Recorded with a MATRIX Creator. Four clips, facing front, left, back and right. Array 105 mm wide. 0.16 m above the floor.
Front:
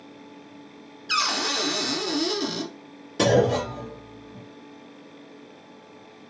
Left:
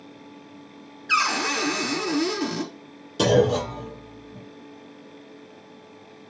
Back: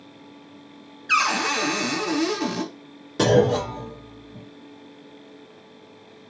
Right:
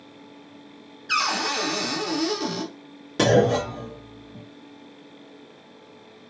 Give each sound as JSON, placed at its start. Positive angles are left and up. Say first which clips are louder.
{"t": 1.1, "sound": "a cupboard door", "louder": "left 1 dB, back 5 dB", "azimuth_deg": 165, "distance_m": 1.3}
{"t": 3.2, "sound": "a clunk", "louder": "right 1 dB, back 2 dB", "azimuth_deg": -110, "distance_m": 2.5}